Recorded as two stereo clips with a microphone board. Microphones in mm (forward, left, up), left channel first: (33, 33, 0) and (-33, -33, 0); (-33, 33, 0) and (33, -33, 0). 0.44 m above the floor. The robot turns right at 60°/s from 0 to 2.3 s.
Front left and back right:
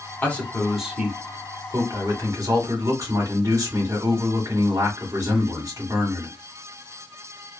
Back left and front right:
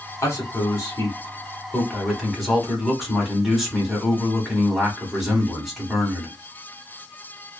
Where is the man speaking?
105° left, 1.2 m; by 6.3 s 130° right, 1.2 m.